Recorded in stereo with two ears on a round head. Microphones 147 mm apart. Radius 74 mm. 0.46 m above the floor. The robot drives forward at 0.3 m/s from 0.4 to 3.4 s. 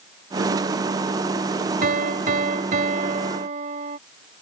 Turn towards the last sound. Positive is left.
turn(degrees=-50)  # may be behind; listen again after turning